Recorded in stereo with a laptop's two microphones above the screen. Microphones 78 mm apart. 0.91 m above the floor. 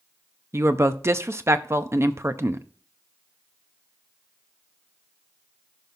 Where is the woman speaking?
40° right (ahead or behind), 0.7 m.